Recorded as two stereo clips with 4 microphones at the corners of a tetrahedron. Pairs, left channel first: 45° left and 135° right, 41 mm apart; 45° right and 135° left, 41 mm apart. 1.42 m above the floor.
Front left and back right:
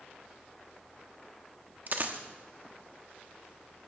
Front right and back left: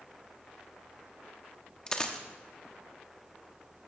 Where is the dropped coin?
110° right, 1.3 m.